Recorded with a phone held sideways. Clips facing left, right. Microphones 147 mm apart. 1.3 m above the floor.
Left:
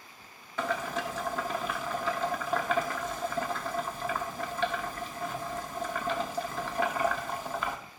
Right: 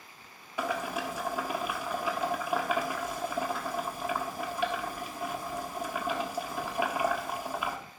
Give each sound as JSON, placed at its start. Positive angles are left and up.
{"t": 0.6, "sound": "boiling", "side_deg": -10, "distance_m": 1.3}